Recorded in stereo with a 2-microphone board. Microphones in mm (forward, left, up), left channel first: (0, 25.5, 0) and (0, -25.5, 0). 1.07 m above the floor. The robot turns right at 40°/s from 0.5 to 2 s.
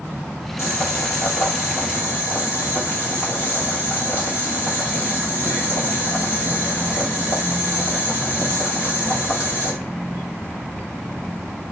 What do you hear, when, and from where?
0.6 s boiling: 85° left, 3 m; by 9.7 s 140° left, 3 m